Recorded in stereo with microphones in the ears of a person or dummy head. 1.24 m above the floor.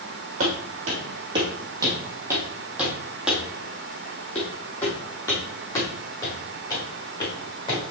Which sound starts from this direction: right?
Footsteps, at 0.4 s.